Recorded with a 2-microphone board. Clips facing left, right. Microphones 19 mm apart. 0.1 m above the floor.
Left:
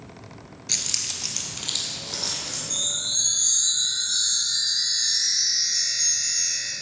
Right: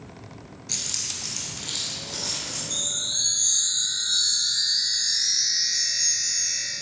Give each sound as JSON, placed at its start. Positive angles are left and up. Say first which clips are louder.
{"t": 0.7, "sound": "keys jangling", "louder": "left 3 dB", "side_deg": 30, "distance_m": 0.9}
{"t": 2.7, "sound": "a chime", "louder": "left 2 dB", "side_deg": 15, "distance_m": 2.0}